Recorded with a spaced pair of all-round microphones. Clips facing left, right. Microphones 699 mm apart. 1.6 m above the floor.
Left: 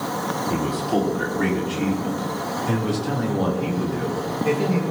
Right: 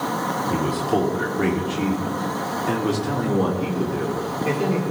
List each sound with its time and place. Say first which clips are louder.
0.5 s a man speaking: right 1 dB; 5° left (ahead or behind), 4.5 m; by 4.8 s 35° left (ahead or behind), 4.5 m